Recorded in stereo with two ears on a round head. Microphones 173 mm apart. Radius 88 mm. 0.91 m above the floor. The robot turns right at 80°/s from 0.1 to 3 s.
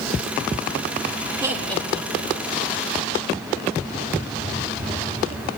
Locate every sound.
1.4 s laughter: 20° right (ahead or behind), 3.5 m; by 2.5 s 70° left (ahead or behind), 3.5 m